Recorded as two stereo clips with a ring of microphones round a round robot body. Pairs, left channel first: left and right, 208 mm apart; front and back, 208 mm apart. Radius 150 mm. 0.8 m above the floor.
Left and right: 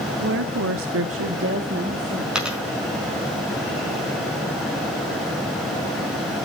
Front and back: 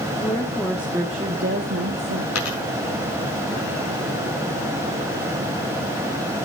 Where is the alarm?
No alarm in this recording.